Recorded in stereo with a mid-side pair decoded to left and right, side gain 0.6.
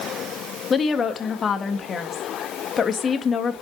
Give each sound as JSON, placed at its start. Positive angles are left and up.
{"t": 0.7, "sound": "a woman speaking", "azimuth_deg": 35, "distance_m": 1.9}